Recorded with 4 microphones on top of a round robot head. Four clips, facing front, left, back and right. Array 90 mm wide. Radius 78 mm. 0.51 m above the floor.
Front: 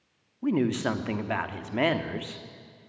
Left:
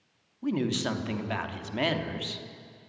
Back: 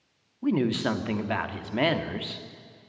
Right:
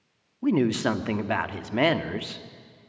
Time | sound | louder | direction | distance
0.4 | a woman speaking | right 6 dB, even | 90° right | 1.2 m